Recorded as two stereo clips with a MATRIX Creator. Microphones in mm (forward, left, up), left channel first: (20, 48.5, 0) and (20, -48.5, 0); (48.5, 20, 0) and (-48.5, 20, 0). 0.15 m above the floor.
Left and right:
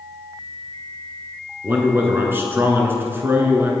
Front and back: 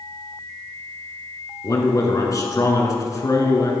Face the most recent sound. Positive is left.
turn(degrees=-35)